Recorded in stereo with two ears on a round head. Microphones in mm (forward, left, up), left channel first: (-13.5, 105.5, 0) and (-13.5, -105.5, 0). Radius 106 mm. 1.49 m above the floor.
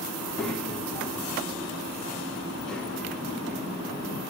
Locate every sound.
0.2 s a child speaking: 5° left (ahead or behind), 2 m